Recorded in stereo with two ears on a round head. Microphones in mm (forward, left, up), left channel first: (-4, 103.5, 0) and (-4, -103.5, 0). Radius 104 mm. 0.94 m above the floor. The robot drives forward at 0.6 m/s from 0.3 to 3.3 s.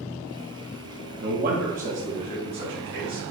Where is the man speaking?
45° right (ahead or behind), 0.8 m; by 3.3 s 20° right (ahead or behind), 1.6 m.